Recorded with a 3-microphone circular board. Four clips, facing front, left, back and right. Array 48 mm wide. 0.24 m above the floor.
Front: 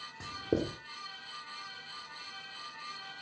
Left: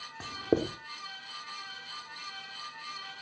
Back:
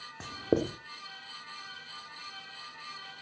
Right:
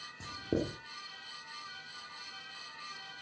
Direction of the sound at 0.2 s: 130° left.